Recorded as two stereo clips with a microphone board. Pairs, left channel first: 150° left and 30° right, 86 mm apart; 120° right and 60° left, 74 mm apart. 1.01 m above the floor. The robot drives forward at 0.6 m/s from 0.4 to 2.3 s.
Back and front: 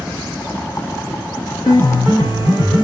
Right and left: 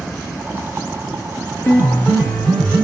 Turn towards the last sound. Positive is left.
turn(degrees=175)